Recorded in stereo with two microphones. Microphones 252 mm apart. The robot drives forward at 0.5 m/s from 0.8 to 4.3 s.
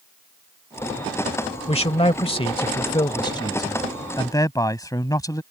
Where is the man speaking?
25° left (ahead or behind); by 5.4 s 15° left (ahead or behind).